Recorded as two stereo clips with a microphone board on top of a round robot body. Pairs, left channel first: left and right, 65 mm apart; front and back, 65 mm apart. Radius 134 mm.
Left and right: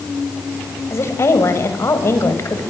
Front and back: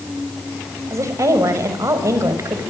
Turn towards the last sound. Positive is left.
turn(degrees=140)